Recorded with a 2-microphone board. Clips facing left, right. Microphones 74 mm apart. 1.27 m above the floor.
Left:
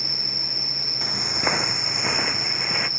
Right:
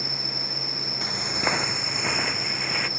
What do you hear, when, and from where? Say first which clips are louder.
0.0 s an insect: right 2 dB; 35° right (ahead or behind)
1.0 s footsteps: left 1 dB; centre (ahead or behind); by 2.9 s 5° left (ahead or behind)